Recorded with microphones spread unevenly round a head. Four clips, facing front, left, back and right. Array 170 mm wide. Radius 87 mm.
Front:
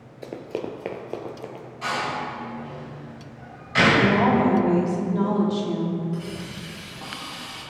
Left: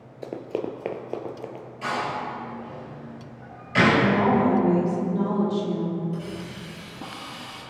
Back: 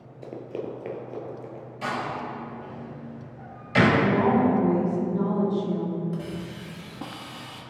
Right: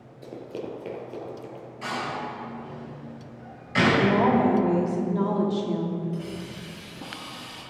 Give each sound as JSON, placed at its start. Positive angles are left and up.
{"t": 0.2, "sound": "running footsteps", "azimuth_deg": 40, "distance_m": 1.1}
{"t": 1.8, "sound": "a door slam", "azimuth_deg": 160, "distance_m": 4.0}
{"t": 4.0, "sound": "a woman speaking", "azimuth_deg": -60, "distance_m": 2.5}
{"t": 6.1, "sound": "a hiss", "azimuth_deg": 155, "distance_m": 1.8}